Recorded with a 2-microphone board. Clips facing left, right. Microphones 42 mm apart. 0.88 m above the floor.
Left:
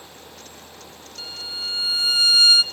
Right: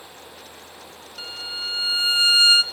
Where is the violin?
30° right (ahead or behind), 0.8 m.